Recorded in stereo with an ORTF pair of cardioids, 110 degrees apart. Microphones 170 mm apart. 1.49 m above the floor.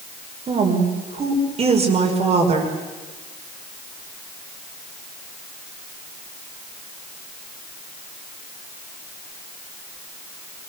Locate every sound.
0.5 s a woman speaking: 40° right, 5 m